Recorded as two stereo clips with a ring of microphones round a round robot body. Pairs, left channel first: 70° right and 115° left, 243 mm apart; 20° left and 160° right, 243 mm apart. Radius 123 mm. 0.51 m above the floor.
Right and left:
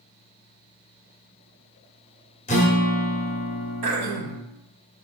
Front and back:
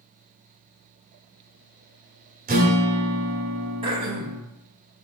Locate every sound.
2.5 s a guitar: 120° right, 0.8 m
3.8 s throat clearing: 135° left, 0.8 m